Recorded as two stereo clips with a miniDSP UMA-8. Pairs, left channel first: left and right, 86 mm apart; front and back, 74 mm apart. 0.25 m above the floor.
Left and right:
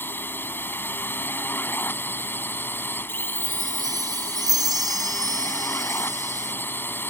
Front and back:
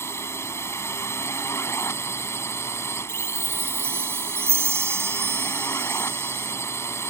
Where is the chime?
125° right.